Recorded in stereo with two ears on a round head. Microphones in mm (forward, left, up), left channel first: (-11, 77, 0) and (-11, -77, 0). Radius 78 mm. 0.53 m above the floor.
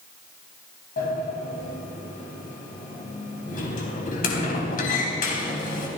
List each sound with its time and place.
1.0 s a sliding door: 55° left (ahead or behind), 3.5 m